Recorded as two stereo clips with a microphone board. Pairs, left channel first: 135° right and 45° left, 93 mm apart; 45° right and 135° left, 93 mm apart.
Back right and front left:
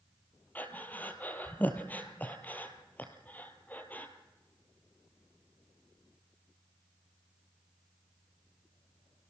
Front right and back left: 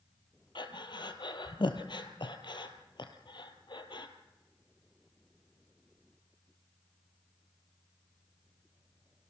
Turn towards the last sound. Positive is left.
turn(degrees=-65)